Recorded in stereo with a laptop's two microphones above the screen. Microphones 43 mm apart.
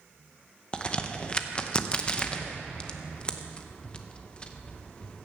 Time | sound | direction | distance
0.7 | a crack | 25° left (ahead or behind) | 0.8 m